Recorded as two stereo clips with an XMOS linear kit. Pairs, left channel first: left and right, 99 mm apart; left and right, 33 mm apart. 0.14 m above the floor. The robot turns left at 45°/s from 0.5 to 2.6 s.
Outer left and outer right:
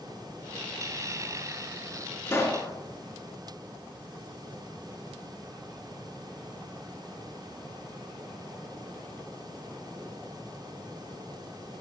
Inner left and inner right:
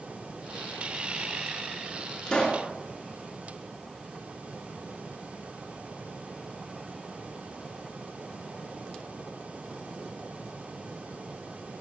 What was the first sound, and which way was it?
A pop, 25° left (ahead or behind).